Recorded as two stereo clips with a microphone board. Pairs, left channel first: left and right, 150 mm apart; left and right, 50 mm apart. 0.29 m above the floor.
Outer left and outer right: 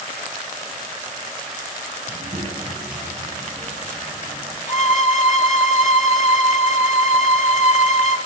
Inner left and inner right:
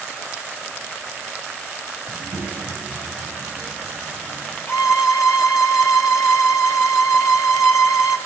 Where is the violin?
50° left (ahead or behind), 1.8 m.